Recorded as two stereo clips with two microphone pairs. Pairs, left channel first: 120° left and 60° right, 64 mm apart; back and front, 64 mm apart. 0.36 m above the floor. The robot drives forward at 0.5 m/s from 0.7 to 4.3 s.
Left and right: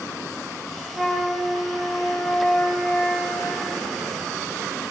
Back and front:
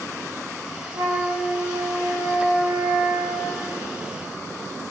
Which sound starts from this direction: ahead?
A flute, at 0.9 s.